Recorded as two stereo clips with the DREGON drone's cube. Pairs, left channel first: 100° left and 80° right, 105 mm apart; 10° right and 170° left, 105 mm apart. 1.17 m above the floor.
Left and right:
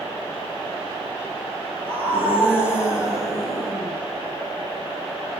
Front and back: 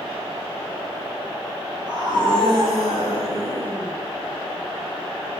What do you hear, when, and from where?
1.9 s a scream: 145° right, 6 m; by 4.0 s 170° right, 7.5 m